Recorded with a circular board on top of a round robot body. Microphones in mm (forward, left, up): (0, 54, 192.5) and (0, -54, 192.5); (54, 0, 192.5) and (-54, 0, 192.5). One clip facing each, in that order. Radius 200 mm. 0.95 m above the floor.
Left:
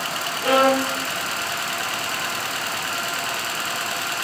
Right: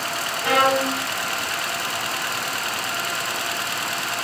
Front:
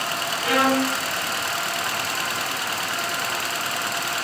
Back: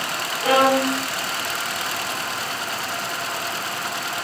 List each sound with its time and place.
0.4 s a violin: 140° left, 2 m